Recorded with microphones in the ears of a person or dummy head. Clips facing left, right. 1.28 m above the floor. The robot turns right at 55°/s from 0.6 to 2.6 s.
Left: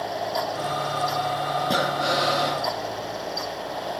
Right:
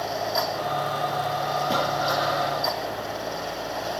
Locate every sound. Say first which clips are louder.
1.6 s breathing: left 2 dB; 5° left, 1.7 m; by 2.6 s 60° left, 1.7 m